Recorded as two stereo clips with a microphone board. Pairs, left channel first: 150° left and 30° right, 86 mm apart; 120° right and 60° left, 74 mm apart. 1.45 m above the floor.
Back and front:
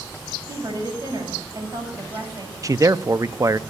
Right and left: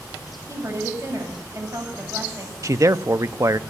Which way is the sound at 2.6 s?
20° left.